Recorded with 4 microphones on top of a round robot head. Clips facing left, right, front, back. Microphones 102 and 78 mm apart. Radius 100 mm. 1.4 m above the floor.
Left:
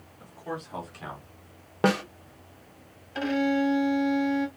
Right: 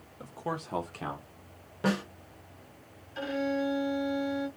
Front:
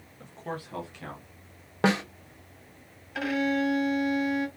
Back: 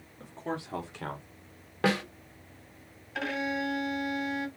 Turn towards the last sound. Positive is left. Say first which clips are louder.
# left 6 dB, front 5 dB
turn(degrees=85)